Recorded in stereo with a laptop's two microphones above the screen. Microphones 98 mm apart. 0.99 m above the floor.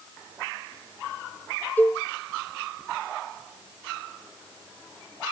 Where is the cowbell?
20° left (ahead or behind), 0.6 m.